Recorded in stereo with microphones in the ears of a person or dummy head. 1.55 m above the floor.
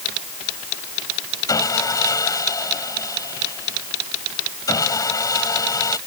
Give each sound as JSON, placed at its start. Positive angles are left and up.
{"t": 1.5, "sound": "sawing", "side_deg": 20}